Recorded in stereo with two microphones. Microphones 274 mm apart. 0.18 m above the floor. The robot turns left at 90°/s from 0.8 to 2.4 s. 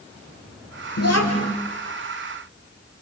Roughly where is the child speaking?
Left.